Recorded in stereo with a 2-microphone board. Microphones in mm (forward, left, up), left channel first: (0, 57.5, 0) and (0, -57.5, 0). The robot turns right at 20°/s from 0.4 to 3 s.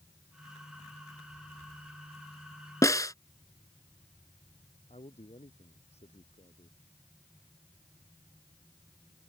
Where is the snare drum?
30° left (ahead or behind).